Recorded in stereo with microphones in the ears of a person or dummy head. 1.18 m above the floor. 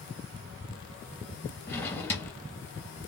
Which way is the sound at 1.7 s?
15° left (ahead or behind).